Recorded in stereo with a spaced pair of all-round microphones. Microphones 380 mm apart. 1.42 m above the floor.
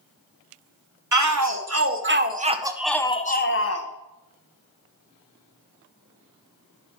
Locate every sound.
1.1 s a shout: 50° right (ahead or behind), 1.2 m; by 3.9 s 45° left (ahead or behind), 0.8 m